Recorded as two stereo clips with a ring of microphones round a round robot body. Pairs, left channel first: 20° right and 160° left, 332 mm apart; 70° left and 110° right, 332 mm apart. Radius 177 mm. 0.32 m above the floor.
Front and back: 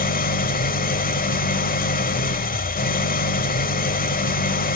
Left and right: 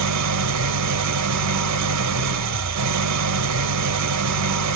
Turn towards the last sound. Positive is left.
turn(degrees=-85)